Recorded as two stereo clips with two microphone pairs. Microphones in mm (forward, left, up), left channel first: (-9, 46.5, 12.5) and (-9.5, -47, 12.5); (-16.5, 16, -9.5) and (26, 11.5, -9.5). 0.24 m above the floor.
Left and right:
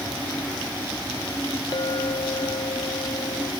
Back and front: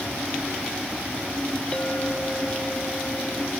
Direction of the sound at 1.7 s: 115° left.